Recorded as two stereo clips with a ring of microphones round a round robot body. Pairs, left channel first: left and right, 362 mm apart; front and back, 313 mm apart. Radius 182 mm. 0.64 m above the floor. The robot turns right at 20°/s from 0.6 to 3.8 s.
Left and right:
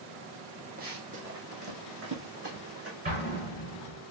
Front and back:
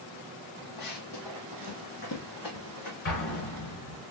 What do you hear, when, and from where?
0.8 s running footsteps: 25° right, 1.5 m
3.0 s an explosion: 20° right, 3.5 m; by 4.0 s 5° right, 3.5 m